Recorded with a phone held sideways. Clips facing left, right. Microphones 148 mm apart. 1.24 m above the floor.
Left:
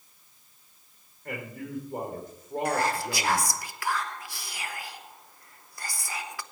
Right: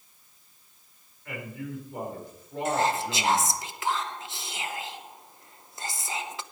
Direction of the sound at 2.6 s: 20° right (ahead or behind).